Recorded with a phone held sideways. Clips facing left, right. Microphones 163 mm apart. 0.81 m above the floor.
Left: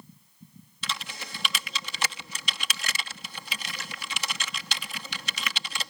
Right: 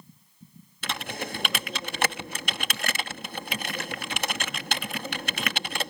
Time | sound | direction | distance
0.8 | typing on a keyboard | 55° right (ahead or behind) | ?